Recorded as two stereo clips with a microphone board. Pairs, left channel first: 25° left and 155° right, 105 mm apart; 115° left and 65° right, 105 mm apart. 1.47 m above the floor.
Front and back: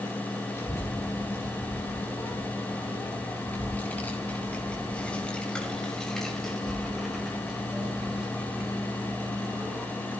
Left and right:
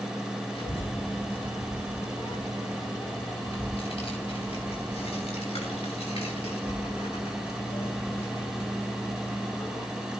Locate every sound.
0.6 s a child speaking: 85° left, 7 m; by 9.9 s 145° left, 3.5 m